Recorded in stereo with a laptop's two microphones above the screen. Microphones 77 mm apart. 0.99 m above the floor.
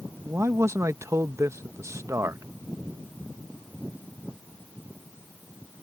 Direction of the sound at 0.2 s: 40° right (ahead or behind).